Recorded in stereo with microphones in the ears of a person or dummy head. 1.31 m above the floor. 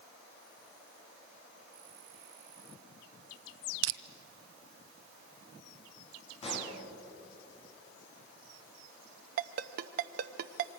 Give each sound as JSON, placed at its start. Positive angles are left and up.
{"t": 3.8, "sound": "crushing", "side_deg": -65, "distance_m": 0.6}
{"t": 6.4, "sound": "a pop", "side_deg": 35, "distance_m": 4.0}
{"t": 9.4, "sound": "a ringtone", "side_deg": -50, "distance_m": 0.7}